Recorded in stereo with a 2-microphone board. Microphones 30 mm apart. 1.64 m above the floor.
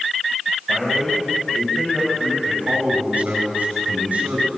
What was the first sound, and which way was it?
A man speaking, 10° right (ahead or behind).